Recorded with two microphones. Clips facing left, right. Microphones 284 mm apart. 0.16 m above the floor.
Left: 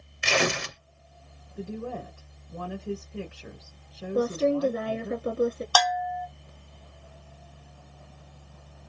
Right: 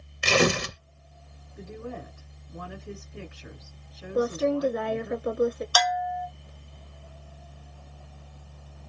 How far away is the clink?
No clink in this recording.